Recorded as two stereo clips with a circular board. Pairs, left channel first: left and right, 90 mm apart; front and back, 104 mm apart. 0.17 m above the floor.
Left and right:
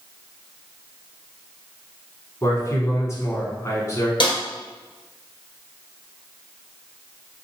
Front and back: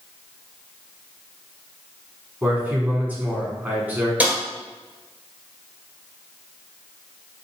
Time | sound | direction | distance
2.4 | a man speaking | 115° left | 1.5 m
4.2 | a snare drum | 105° left | 1.4 m